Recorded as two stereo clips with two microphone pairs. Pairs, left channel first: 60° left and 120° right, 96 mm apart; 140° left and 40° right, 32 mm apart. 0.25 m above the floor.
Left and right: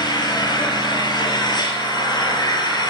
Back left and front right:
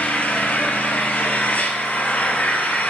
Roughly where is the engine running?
Left.